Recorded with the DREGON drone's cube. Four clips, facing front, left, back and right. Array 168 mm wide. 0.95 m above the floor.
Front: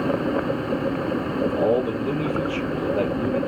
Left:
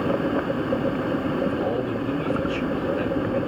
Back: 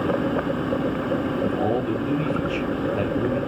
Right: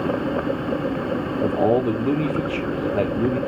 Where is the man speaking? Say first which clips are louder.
Right 5 dB, front 2 dB; 85° right, 2.5 m.